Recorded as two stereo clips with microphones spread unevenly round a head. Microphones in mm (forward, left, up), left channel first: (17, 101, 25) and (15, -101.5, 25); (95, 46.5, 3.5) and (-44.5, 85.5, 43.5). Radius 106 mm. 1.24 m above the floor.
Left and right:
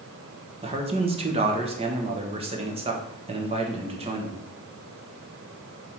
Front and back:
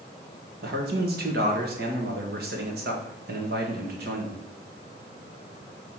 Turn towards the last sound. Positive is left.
turn(degrees=-155)